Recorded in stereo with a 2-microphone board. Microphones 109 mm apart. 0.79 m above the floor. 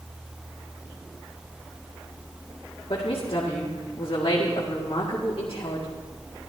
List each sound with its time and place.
2.9 s a woman speaking: 65° left (ahead or behind), 1.9 m